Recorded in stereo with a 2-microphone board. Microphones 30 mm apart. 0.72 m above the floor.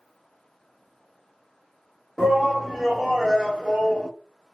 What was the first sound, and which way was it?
A shout, 15° right (ahead or behind).